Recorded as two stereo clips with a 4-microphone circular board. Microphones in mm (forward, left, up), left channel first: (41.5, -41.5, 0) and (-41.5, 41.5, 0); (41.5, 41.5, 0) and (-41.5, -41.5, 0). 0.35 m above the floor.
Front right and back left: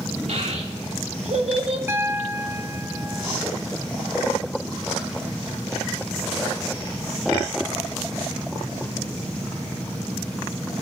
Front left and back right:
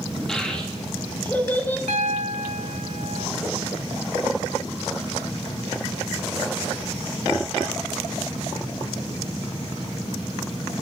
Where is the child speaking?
130° left, 4.5 m; by 1.8 s 115° left, 4 m.